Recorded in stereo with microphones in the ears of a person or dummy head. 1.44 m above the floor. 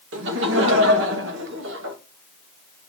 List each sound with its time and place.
0.1 s laughter: 70° right (ahead or behind), 1.2 m